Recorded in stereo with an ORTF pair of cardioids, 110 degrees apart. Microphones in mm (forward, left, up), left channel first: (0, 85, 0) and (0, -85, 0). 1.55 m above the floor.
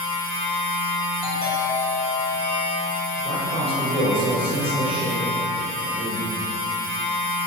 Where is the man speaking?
30° right, 1.0 m.